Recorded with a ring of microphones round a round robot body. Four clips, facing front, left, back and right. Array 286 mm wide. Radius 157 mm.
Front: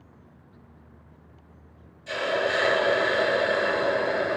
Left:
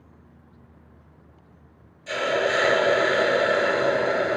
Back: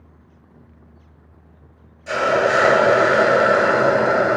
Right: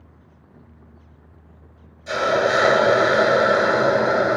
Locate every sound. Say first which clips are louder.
2.1 s a hiss: right 4 dB, back 9 dB; 155° right, 0.6 m